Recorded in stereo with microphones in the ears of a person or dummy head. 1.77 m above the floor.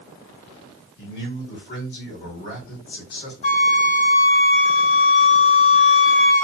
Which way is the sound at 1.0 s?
60° left (ahead or behind).